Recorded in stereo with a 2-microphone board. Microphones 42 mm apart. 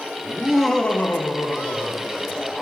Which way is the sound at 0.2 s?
25° right (ahead or behind).